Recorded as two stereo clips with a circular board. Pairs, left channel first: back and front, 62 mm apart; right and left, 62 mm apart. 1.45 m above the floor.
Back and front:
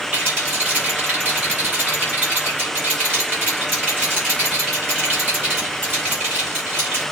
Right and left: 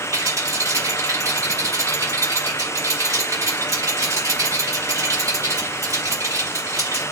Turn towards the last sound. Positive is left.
turn(degrees=60)